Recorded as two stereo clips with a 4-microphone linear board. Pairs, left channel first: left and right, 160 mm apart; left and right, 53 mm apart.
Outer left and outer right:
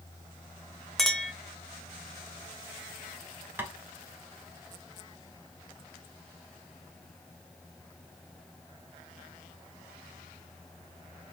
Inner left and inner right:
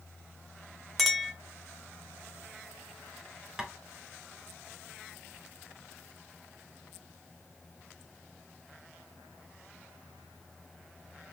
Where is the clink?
Centre (ahead or behind), 0.8 m.